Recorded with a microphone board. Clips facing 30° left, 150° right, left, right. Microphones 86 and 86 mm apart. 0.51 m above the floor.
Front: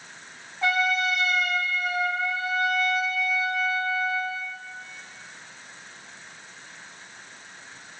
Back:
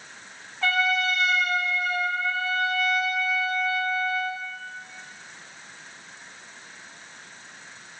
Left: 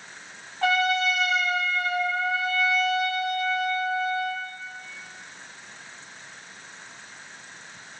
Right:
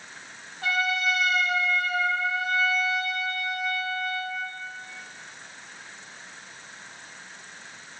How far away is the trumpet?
About 4.5 m.